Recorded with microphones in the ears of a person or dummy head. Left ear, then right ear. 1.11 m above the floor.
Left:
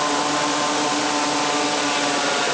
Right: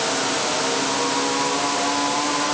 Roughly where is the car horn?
I don't hear a car horn.